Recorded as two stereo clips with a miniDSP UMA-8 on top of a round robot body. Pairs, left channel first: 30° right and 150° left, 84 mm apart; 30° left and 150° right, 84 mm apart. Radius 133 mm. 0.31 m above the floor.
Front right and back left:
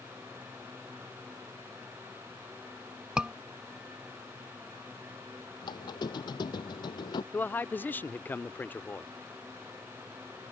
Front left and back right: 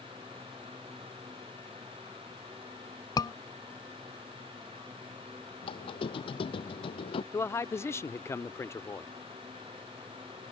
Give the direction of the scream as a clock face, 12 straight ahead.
10 o'clock.